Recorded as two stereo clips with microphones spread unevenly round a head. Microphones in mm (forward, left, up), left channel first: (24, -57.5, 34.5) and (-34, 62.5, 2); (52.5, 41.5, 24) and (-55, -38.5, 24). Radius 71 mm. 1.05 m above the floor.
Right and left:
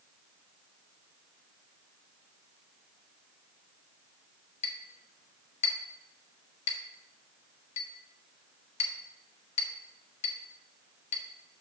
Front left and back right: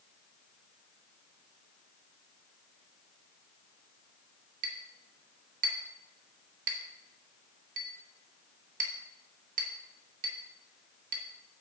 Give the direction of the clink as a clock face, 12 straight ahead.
4 o'clock.